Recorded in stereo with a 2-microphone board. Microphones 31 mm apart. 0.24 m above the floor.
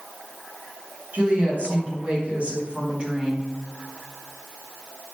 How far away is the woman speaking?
About 1.7 m.